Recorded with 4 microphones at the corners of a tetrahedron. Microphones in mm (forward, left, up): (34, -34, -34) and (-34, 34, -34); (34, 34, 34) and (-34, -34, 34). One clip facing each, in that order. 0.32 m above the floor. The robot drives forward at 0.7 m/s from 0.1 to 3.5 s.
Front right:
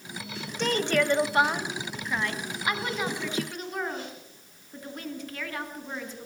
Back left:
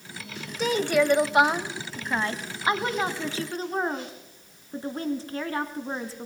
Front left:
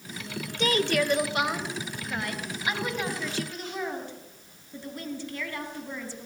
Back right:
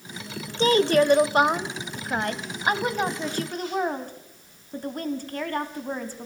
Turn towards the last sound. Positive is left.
turn(degrees=-175)